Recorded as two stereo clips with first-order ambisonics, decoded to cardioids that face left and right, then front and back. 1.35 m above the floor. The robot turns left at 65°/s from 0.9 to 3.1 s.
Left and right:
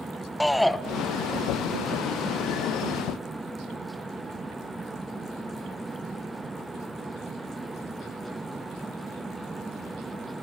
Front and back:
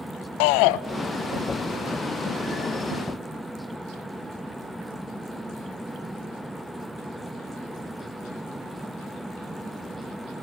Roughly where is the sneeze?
I don't hear a sneeze.